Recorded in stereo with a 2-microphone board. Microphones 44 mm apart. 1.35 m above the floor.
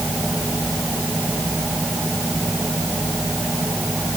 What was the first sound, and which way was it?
Only background noise.